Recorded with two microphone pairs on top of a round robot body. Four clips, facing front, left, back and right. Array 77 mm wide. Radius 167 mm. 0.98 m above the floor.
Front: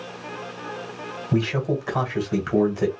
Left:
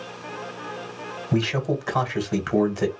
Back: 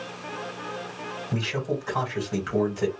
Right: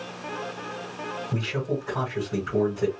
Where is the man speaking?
80° left, 1.6 m.